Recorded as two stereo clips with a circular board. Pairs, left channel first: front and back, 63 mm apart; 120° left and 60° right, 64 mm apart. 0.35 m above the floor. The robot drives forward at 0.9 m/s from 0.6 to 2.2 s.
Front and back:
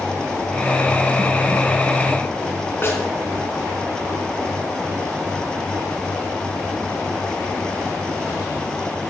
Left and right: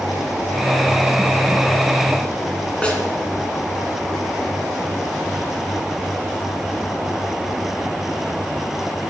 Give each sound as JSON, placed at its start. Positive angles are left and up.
{"t": 2.8, "sound": "a snare drum", "azimuth_deg": 50, "distance_m": 2.0}